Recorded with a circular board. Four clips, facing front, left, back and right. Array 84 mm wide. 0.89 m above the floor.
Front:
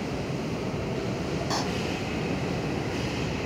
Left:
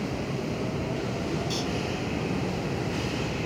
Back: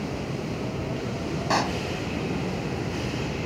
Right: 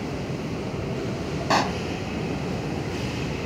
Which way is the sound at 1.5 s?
120° right.